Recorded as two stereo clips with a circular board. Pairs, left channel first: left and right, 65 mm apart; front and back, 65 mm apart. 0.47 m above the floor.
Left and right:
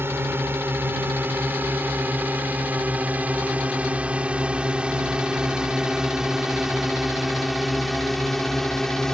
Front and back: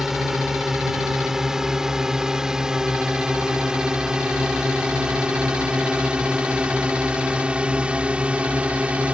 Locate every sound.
0.0 s a drone: 100° right; by 9.2 s 160° left